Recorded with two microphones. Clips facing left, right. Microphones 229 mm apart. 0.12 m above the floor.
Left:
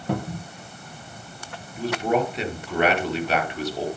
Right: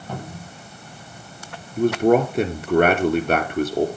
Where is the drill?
I don't hear a drill.